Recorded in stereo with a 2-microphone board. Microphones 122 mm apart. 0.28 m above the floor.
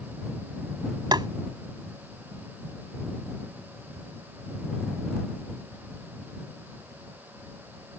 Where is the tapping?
35° right (ahead or behind).